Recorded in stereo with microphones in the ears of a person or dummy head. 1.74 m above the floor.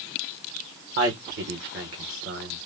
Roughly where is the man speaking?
Right.